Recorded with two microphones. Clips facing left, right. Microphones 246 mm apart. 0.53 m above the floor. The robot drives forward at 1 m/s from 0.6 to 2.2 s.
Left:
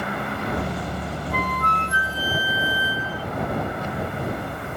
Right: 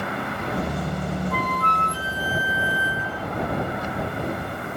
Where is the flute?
75° right (ahead or behind), 4 m; by 3.3 s 65° right (ahead or behind), 4 m.